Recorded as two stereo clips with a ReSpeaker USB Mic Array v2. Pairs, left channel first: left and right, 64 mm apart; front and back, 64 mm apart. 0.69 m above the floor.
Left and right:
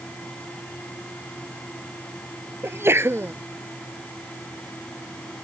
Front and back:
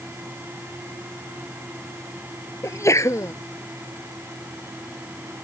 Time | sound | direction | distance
2.6 | a sneeze | 40° right | ?